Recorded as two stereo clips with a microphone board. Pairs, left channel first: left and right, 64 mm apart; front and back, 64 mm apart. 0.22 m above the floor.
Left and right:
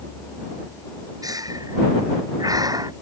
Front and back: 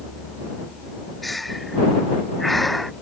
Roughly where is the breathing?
Right.